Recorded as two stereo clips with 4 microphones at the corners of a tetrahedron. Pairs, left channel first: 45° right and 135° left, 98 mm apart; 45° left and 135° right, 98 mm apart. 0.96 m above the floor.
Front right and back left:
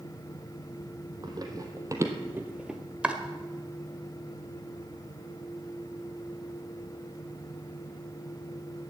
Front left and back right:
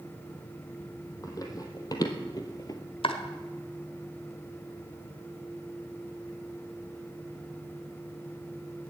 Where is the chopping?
60° left, 1.3 m.